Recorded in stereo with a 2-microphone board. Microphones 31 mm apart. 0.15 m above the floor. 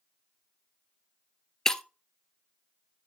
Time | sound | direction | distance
1.6 | breaking glass | 15° left (ahead or behind) | 0.7 m